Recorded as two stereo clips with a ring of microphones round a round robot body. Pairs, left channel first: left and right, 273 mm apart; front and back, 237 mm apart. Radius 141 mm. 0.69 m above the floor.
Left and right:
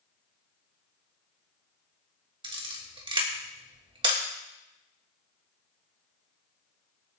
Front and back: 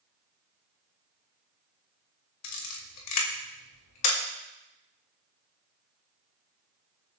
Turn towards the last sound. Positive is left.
turn(degrees=-15)